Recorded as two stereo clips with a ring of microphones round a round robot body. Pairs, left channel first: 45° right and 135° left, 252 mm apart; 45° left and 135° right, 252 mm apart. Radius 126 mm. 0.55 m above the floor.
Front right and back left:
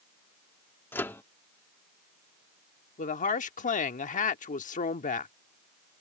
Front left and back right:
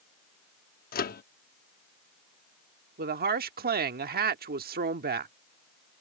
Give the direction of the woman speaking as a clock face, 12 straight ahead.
3 o'clock.